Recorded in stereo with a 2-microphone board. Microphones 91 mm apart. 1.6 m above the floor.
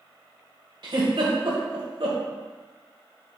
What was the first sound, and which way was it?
A giggle, 65° right (ahead or behind).